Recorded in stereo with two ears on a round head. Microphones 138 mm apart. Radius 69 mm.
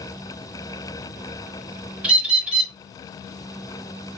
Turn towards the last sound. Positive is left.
turn(degrees=-5)  # may be behind; listen again after turning